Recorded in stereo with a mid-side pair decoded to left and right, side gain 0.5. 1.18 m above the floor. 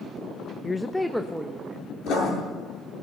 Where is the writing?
70° left, 8.5 m.